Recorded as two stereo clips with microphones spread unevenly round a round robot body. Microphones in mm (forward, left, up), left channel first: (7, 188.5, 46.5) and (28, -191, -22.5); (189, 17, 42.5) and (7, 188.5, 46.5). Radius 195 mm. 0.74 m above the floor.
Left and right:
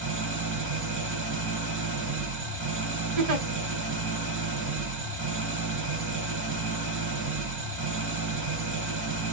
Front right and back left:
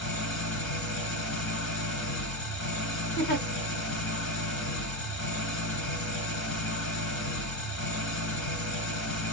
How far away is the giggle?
About 1.5 m.